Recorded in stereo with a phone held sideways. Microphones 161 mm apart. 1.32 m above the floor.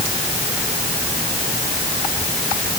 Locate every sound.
Only background noise.